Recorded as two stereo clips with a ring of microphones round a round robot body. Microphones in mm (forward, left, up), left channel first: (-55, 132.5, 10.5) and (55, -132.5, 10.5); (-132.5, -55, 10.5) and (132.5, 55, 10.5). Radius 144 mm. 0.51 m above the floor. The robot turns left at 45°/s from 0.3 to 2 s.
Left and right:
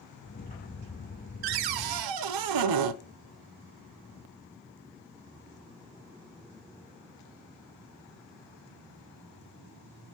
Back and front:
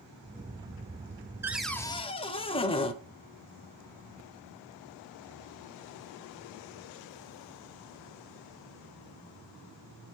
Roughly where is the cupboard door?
Ahead right.